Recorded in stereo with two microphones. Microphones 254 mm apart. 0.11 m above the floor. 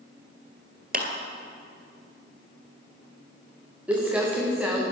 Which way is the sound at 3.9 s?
5° right (ahead or behind).